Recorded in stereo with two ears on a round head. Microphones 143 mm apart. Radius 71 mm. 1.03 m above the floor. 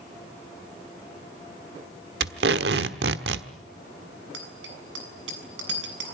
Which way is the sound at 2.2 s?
75° right (ahead or behind).